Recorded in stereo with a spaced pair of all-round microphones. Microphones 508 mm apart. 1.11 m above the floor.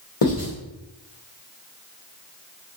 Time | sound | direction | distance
0.2 | writing | 80° left | 1.1 m